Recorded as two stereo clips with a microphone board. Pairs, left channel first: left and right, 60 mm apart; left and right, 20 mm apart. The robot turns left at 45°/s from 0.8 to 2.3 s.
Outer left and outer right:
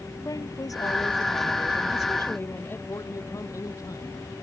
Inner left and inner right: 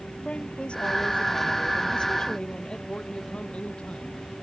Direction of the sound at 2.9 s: 65° left (ahead or behind).